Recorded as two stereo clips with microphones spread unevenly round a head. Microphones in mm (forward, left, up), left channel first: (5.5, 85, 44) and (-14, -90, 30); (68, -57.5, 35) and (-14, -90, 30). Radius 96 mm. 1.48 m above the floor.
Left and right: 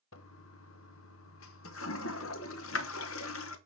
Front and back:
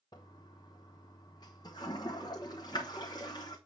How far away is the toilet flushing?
About 0.9 m.